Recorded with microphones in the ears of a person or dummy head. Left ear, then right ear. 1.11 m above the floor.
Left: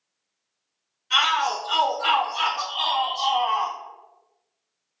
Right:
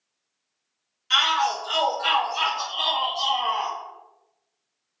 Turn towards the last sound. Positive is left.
turn(degrees=45)  # may be behind; listen again after turning